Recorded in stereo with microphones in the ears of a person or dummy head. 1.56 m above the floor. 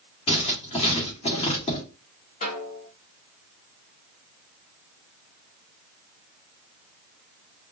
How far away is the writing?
About 1.7 m.